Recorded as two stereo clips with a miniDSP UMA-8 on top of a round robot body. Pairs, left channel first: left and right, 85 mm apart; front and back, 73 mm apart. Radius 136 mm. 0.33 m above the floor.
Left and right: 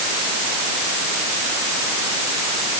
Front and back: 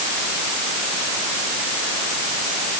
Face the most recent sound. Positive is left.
No sound to turn to.